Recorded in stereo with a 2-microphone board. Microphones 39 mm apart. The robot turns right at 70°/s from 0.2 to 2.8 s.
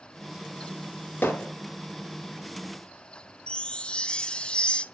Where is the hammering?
60° left (ahead or behind), 3.5 m; by 1.5 s 45° left (ahead or behind), 3.5 m.